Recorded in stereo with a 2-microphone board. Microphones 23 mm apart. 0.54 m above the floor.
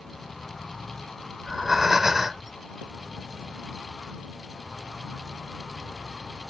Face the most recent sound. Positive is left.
turn(degrees=-15)  # may be behind; listen again after turning